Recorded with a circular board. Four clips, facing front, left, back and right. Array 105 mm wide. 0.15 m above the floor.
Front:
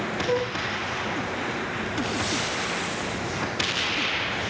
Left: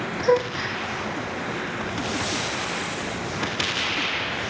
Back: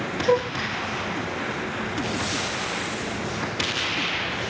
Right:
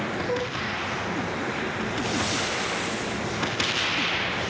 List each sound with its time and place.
0.2 s a gasp: 110° left, 5 m